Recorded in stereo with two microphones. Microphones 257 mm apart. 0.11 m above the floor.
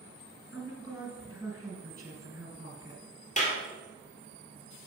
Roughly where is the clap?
Left.